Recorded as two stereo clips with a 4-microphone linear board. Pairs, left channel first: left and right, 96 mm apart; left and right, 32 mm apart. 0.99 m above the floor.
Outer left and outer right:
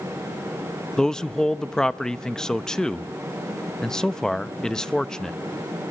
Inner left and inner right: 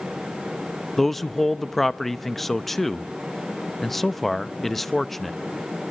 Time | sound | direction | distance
1.0 | a man speaking | 5° left (ahead or behind) | 0.9 m